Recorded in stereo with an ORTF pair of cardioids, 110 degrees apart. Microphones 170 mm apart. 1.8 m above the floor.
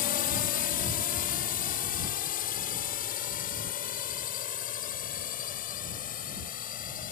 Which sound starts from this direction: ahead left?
A drone, at 0.0 s.